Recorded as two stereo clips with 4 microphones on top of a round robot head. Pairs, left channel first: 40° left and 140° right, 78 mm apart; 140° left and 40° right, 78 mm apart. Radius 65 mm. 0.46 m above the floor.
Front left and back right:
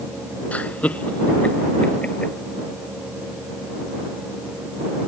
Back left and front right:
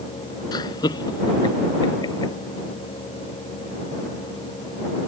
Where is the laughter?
110° left; by 2.3 s 115° left.